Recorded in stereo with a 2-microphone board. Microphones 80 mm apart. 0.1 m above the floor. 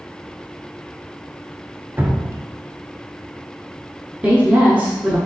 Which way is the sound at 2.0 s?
25° right (ahead or behind).